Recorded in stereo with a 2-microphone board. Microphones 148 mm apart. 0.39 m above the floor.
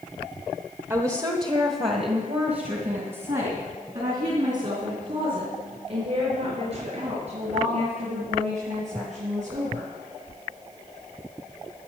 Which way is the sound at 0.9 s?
20° right (ahead or behind).